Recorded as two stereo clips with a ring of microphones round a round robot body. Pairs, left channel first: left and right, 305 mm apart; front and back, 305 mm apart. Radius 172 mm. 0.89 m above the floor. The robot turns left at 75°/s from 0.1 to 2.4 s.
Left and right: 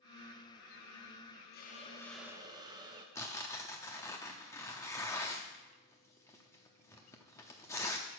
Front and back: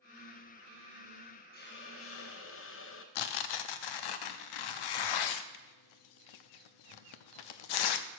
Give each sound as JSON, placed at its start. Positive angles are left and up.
{"t": 1.5, "sound": "a hiss", "azimuth_deg": 45, "distance_m": 1.1}
{"t": 3.1, "sound": "tearing paper", "azimuth_deg": 10, "distance_m": 0.5}